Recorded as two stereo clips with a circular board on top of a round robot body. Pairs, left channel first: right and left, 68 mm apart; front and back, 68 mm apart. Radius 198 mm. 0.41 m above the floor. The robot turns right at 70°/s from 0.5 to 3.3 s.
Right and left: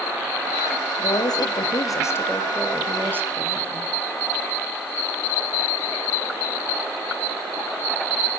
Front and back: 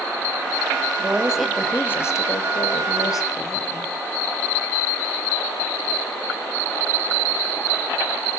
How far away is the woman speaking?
About 3.5 m.